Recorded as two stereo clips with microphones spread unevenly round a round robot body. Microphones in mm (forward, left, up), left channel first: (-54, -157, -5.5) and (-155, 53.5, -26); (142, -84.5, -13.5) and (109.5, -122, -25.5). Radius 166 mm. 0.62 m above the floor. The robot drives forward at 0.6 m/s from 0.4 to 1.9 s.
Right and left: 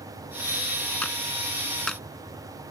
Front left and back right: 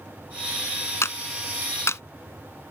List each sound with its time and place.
1.0 s a clap: 20° left; by 2.0 s 25° left